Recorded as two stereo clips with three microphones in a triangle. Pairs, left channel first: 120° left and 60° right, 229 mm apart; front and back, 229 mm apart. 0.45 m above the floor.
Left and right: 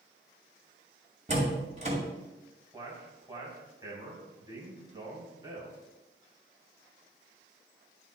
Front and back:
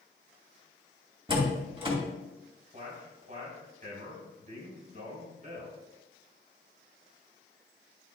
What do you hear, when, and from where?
1.3 s a door slam: 115° right, 2.5 m
2.7 s a man speaking: 130° right, 3 m